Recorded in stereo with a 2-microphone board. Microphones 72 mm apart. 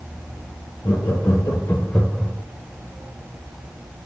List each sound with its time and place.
0.8 s laughter: 50° left (ahead or behind), 2 m; by 2.3 s 25° right (ahead or behind), 0.8 m